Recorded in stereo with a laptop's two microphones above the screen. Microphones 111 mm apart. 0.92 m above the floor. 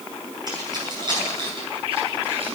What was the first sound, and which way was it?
Keys jangling, 40° right (ahead or behind).